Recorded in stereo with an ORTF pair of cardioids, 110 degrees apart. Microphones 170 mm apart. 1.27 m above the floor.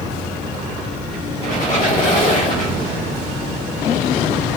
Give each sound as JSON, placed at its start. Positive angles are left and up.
{"t": 1.4, "sound": "a squeak", "azimuth_deg": 45, "distance_m": 1.4}